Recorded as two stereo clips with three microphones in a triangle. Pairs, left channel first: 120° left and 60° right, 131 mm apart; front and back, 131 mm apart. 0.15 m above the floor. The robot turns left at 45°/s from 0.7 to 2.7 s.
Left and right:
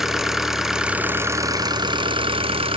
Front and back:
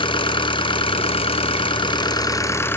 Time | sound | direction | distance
0.0 | an engine running | 25° left | 0.9 m